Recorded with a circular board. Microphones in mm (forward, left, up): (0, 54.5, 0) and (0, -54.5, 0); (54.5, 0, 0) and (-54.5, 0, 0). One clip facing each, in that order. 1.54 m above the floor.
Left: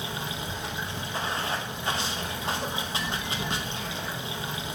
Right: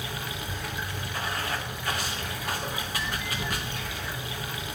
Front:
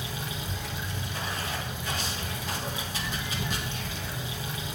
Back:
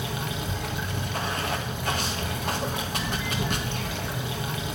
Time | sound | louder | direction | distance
0.0 | running water | left 2 dB, back 5 dB | 155° left | 1.7 m